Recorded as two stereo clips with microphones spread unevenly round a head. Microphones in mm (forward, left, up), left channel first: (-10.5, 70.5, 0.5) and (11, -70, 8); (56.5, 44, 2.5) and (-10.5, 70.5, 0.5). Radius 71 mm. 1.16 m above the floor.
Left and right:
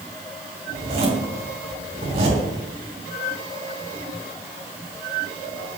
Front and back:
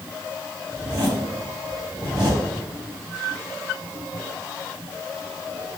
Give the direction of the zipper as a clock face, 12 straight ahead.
4 o'clock.